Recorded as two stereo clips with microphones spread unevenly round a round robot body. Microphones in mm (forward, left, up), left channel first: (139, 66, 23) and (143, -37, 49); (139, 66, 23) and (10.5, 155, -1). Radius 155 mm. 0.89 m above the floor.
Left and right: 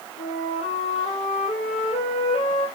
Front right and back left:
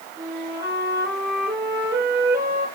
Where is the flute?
140° left, 6 m.